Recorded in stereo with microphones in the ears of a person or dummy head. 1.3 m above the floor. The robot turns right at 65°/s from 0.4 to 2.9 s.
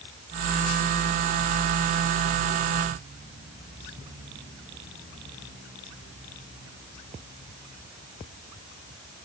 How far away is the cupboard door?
I don't hear a cupboard door.